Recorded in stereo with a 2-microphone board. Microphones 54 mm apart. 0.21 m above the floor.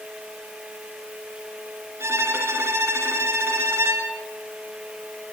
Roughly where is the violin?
Right.